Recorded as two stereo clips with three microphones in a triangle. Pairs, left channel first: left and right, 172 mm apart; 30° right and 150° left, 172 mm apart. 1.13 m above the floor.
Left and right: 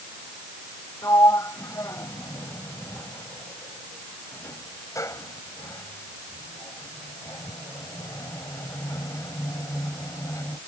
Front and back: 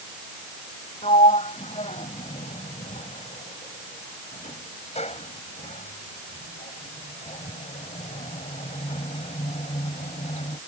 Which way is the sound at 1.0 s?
20° left.